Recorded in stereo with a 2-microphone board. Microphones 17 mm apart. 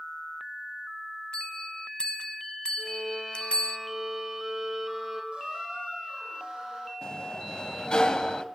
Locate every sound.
1.3 s a bell: 70° left (ahead or behind), 1.0 m
2.8 s a violin: 25° right (ahead or behind), 4 m
5.3 s a squeak: 80° right, 7 m
7.0 s a sliding door: 50° left (ahead or behind), 1.3 m